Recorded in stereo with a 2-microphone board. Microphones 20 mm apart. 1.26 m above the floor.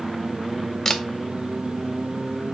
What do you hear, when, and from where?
0.8 s a camera shutter: 25° left (ahead or behind), 0.5 m